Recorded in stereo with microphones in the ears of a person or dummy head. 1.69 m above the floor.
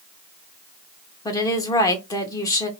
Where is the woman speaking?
15° left (ahead or behind), 0.8 m.